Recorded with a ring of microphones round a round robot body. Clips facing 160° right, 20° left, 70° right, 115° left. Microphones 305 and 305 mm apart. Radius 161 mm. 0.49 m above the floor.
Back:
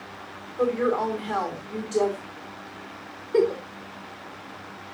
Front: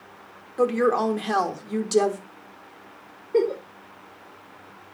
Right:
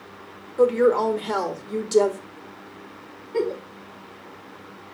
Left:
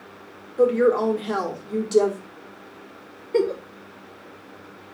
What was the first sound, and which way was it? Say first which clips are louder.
A woman speaking: front 2 dB, even; 15° left.